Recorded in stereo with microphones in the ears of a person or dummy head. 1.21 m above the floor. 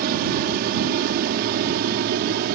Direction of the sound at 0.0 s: 50° right (ahead or behind).